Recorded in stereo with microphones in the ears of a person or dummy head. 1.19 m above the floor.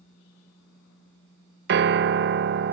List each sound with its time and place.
1.7 s a piano: 55° right (ahead or behind), 0.7 m